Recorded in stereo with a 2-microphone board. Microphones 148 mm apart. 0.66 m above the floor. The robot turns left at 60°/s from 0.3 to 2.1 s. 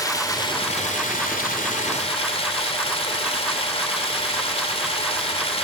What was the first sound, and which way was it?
Running water, 155° left.